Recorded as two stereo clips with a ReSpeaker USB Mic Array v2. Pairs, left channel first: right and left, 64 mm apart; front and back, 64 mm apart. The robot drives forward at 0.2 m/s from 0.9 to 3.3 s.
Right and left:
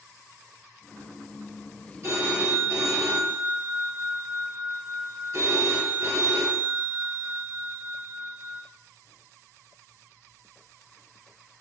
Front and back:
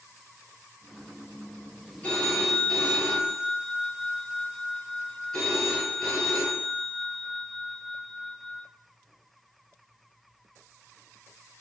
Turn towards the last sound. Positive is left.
turn(degrees=80)